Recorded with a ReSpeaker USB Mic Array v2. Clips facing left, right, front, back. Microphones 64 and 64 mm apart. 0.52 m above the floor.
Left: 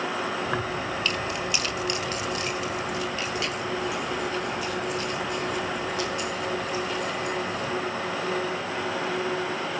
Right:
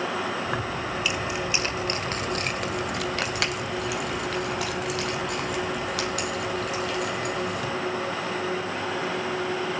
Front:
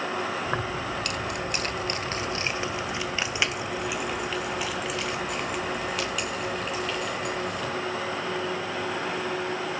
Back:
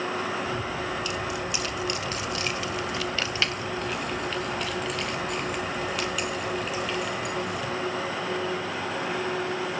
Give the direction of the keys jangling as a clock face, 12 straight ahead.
12 o'clock.